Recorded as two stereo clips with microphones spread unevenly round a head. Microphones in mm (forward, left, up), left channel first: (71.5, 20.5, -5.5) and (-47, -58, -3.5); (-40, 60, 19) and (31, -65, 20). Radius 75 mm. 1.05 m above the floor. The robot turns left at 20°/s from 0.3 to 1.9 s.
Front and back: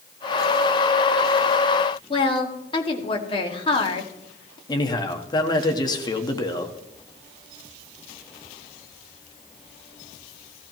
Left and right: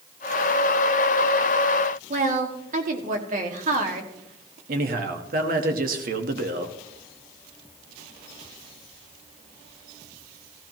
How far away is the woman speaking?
About 2 m.